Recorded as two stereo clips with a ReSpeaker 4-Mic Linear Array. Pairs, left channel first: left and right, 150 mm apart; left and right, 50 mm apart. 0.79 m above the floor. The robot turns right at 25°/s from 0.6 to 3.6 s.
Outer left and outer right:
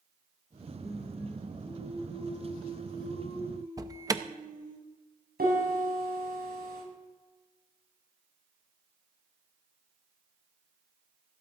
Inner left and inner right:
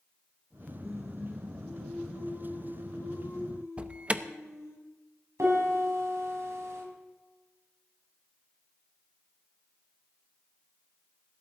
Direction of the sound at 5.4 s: 85° right.